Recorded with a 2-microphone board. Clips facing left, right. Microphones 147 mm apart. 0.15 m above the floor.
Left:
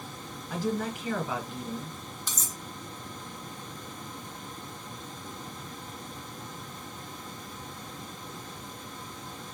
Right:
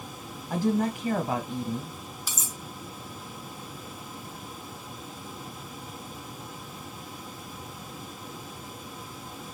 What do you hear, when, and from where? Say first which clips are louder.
0.5 s a woman speaking: right 5 dB; 35° right (ahead or behind), 1.4 m
2.3 s cutlery clinking: right 1 dB; 10° right (ahead or behind), 0.6 m